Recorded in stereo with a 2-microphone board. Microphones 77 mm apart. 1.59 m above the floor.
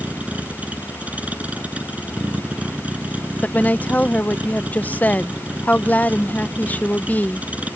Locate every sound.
0.0 s a vehicle: 20° right (ahead or behind)
3.4 s a woman speaking: 20° left (ahead or behind)